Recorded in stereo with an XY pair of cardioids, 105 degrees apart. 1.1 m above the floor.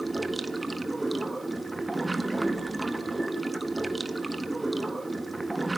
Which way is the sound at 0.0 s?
15° right.